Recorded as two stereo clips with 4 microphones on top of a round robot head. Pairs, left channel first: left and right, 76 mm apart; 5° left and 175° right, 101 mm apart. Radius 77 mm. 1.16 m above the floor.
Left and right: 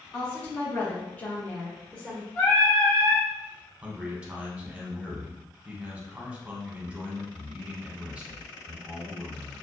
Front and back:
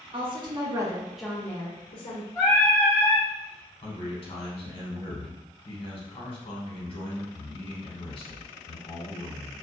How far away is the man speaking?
About 0.9 m.